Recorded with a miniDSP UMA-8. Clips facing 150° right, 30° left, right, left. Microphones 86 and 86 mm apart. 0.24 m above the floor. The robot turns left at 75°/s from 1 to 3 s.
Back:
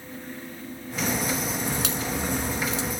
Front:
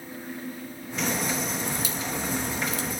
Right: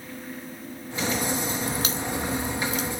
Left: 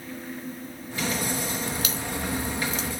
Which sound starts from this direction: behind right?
A crack, at 1.7 s.